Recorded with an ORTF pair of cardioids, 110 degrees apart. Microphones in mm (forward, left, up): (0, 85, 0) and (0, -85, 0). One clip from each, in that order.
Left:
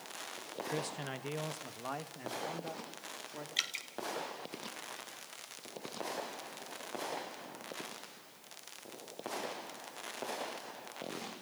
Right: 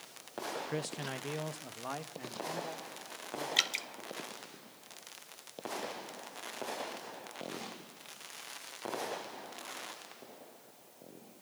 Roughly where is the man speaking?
Ahead.